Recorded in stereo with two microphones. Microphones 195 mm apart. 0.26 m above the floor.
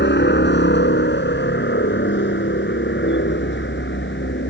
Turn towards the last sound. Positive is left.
turn(degrees=70)  # may be behind; listen again after turning